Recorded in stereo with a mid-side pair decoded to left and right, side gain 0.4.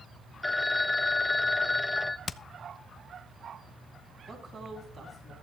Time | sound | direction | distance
0.4 | a phone ringing | 15° left | 1.0 m
2.3 | hammering | 50° left | 0.7 m
4.3 | a woman speaking | 50° right | 7.5 m